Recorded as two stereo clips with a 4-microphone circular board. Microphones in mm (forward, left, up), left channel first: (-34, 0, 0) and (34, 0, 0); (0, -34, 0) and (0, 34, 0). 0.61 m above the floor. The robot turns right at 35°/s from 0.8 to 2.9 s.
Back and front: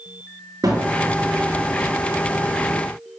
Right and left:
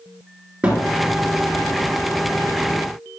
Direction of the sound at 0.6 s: 15° left.